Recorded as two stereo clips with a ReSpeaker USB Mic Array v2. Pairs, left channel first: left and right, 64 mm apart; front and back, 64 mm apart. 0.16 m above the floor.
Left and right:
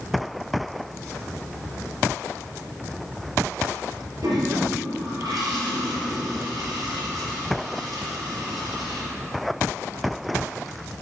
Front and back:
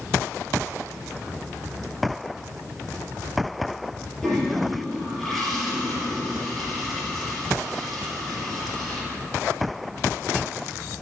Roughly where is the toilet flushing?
Right.